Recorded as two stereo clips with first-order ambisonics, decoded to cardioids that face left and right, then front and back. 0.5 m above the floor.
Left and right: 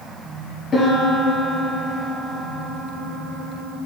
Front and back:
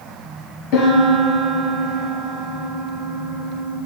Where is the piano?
25° left, 2.5 m.